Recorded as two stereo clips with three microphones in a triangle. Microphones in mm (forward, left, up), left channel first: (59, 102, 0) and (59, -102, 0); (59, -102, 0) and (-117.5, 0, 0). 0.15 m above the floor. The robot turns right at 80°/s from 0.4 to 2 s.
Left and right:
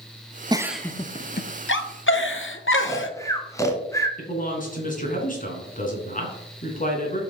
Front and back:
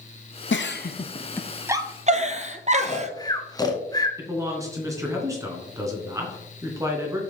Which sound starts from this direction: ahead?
A giggle, at 0.5 s.